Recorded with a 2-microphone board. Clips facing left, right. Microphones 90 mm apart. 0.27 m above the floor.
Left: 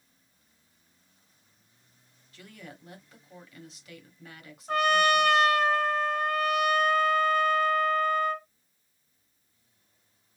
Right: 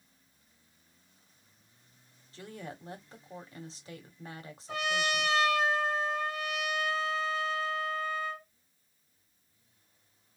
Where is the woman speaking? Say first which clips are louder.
Right 4 dB; 30° right (ahead or behind), 1.6 m.